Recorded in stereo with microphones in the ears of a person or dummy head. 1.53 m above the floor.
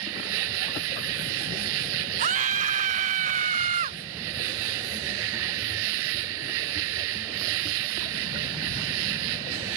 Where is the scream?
45° right (ahead or behind).